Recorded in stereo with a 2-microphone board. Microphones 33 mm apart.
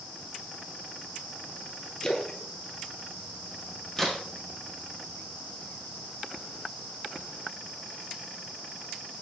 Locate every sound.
2.0 s a splash: 25° left (ahead or behind), 1.2 m
4.0 s a crack: 15° left (ahead or behind), 2.5 m